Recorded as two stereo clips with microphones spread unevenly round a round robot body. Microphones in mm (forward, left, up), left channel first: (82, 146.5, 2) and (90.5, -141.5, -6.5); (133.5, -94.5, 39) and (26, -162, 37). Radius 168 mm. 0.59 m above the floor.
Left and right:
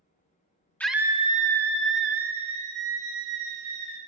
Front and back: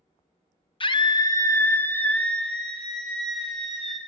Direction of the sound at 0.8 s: 10° left.